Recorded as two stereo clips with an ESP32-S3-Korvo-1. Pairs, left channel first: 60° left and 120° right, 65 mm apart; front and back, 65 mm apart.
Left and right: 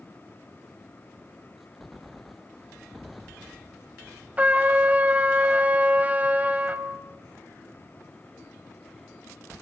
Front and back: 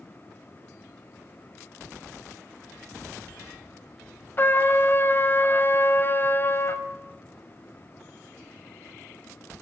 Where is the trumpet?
55° right, 1.6 m.